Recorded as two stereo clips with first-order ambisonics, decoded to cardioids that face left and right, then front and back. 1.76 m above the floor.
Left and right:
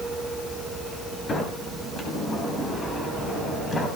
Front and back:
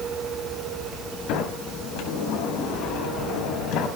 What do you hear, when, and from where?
1.3 s a sliding door: 20° left, 5 m